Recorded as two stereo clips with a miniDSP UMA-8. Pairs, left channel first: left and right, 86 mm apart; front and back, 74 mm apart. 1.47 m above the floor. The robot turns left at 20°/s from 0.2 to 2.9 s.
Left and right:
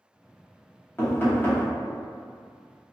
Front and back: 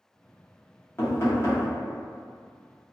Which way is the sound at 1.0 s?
40° left.